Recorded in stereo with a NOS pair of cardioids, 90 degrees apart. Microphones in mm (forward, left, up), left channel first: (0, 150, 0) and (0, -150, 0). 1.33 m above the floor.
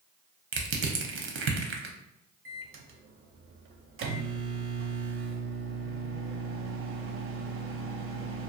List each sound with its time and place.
0.5 s crushing: 45° right, 0.6 m
2.5 s a microwave: 45° right, 0.6 m